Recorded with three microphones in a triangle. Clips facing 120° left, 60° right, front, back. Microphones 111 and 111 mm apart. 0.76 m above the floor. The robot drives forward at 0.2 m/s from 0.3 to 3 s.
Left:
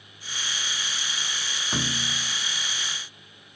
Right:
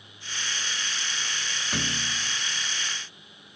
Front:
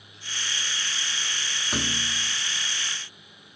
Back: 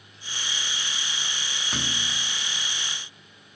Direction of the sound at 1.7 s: 75° left.